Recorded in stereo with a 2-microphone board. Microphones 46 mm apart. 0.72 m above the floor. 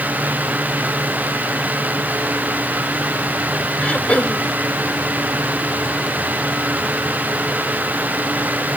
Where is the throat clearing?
30° left (ahead or behind).